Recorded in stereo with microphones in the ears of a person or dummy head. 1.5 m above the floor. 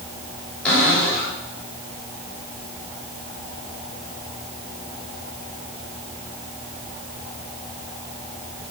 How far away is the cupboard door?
About 6.5 m.